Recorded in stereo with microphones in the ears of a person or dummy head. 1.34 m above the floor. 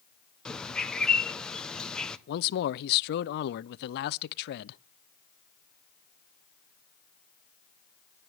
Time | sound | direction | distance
0.5 | a bird | 5° left (ahead or behind) | 0.8 m
2.3 | a man speaking | 55° left (ahead or behind) | 0.5 m